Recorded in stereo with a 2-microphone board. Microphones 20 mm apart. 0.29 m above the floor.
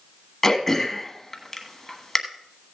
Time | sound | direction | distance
0.4 | throat clearing | 20° left (ahead or behind) | 1.3 m